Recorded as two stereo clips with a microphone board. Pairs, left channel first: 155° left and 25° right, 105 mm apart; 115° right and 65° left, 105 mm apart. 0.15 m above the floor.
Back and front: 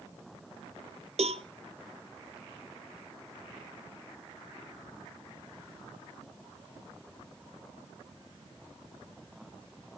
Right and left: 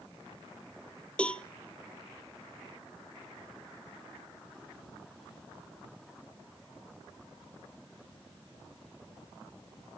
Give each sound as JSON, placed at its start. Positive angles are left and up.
{"t": 1.2, "sound": "a cowbell", "azimuth_deg": -30, "distance_m": 0.6}